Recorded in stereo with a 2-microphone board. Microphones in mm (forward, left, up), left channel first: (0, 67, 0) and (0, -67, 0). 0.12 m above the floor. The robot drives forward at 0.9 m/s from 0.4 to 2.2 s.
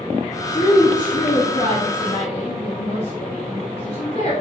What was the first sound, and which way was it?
A woman speaking, 60° left (ahead or behind).